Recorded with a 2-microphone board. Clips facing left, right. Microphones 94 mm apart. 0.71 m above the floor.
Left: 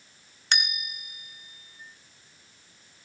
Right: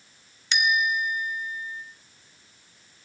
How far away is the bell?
About 1.7 m.